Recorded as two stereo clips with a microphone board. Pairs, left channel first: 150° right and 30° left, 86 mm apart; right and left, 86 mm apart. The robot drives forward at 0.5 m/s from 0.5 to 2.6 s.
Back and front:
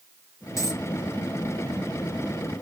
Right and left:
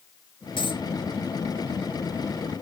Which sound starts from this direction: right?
A dropped coin, at 0.6 s.